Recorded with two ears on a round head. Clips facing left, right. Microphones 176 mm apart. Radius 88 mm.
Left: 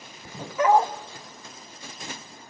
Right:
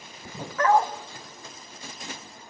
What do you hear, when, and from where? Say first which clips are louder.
0.6 s a dog barking: left 2 dB; 15° left (ahead or behind), 0.9 m